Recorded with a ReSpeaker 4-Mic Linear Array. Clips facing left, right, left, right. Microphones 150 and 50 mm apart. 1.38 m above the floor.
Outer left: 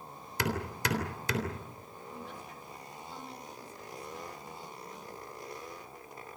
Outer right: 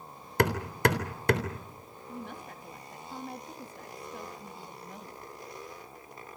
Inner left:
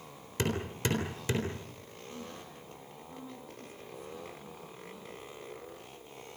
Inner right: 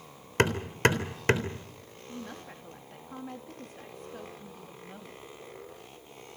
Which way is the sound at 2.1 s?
60° right (ahead or behind).